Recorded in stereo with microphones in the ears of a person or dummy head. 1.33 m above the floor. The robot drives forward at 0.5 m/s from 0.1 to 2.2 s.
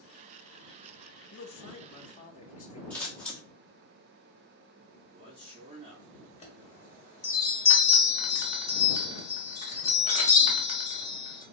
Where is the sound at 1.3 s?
60° left (ahead or behind), 0.7 m; by 2.8 s 40° left (ahead or behind), 0.9 m.